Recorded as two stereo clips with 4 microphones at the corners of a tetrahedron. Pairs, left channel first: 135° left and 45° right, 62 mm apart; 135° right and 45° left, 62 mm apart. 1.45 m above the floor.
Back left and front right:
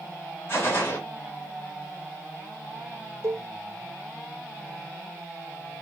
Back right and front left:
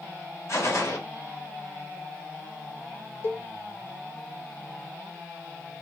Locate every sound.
0.5 s a gunshot: 175° right, 1.2 m
3.2 s a cowbell: 80° right, 0.5 m